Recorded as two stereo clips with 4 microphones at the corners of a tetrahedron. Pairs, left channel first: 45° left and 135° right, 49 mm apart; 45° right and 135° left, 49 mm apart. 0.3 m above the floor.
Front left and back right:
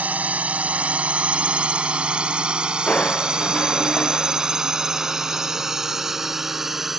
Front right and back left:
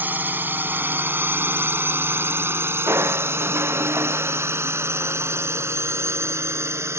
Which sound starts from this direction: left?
Crushing, at 2.9 s.